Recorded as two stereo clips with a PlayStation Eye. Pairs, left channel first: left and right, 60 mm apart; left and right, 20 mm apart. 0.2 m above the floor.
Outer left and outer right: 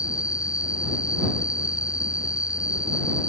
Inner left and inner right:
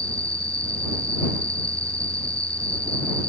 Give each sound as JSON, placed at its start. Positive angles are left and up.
{"t": 0.0, "sound": "an insect", "side_deg": 70}